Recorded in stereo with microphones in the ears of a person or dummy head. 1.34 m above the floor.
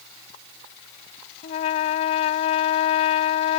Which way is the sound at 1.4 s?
45° left (ahead or behind).